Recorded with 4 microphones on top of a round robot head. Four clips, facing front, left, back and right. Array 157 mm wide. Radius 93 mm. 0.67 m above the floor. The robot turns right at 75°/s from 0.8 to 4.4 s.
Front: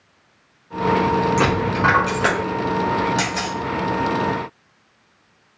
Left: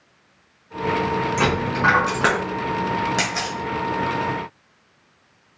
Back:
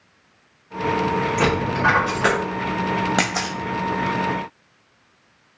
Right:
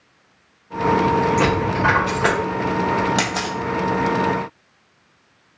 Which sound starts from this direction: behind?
A camera shutter, at 3.2 s.